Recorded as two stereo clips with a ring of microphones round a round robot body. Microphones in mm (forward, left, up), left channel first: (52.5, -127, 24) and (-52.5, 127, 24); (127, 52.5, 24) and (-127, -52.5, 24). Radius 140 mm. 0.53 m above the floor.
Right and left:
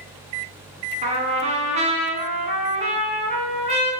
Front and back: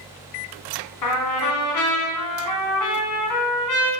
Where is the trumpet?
45° left, 1.3 m.